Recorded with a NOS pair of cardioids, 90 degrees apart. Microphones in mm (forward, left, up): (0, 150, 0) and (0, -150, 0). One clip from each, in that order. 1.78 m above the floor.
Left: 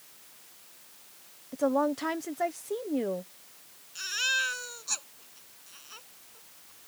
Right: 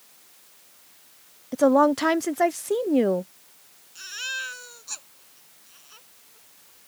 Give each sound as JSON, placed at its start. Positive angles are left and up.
{"t": 1.5, "sound": "a woman speaking", "azimuth_deg": -55}
{"t": 4.0, "sound": "a baby crying", "azimuth_deg": 25}